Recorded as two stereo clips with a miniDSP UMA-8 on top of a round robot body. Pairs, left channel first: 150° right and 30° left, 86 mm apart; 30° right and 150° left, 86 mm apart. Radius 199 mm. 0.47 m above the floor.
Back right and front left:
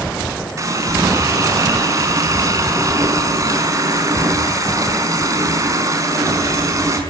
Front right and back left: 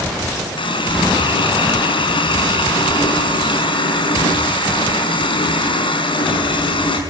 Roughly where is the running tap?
Ahead.